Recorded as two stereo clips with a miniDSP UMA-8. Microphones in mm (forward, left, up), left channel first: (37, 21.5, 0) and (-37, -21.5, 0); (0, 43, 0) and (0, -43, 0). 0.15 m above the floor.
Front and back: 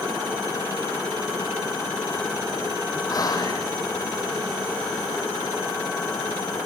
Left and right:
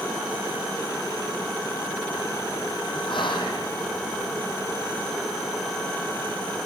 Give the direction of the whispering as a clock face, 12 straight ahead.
9 o'clock.